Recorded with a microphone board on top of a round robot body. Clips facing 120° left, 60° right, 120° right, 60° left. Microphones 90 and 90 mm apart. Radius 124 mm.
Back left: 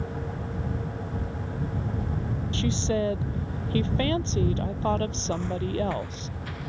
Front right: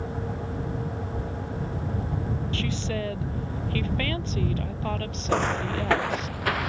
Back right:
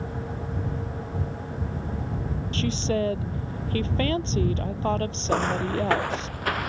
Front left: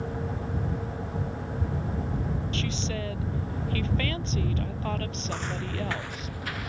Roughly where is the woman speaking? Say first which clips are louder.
Back left 7 dB, back right 6 dB; behind.